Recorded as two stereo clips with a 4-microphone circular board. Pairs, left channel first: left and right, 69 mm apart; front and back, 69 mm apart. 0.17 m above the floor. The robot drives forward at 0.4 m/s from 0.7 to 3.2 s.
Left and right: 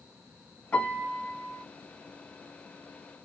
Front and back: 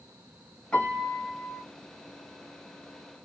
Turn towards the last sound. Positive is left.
turn(degrees=135)